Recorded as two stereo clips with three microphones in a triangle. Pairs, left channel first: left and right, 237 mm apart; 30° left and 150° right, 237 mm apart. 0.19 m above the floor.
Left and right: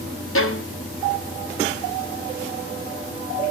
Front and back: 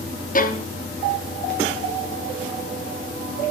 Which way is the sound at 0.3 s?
80° left.